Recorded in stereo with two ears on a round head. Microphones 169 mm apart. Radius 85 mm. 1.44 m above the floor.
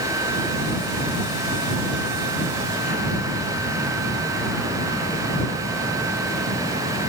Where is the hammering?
I don't hear hammering.